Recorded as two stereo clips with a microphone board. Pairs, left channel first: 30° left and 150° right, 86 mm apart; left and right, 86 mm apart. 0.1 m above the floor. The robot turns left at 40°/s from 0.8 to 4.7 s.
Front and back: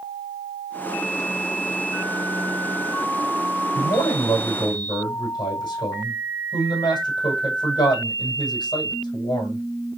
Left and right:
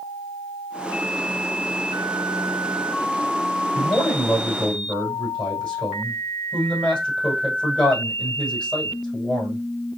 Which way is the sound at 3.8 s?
45° left.